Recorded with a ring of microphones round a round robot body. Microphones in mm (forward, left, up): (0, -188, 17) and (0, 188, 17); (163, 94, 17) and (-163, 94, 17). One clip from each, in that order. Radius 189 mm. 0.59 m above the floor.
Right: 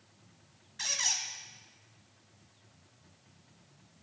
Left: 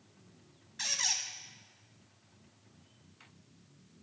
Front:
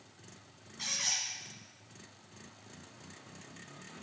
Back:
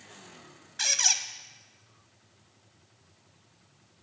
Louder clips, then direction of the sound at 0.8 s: Right 1 dB, back 8 dB; 175° left.